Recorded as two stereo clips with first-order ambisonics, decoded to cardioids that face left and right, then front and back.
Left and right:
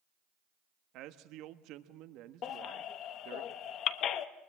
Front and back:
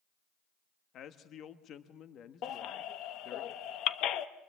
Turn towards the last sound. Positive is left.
turn(degrees=45)